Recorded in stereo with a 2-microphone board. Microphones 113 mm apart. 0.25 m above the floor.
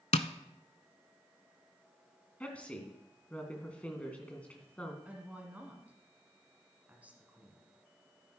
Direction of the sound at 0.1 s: 75° left (ahead or behind).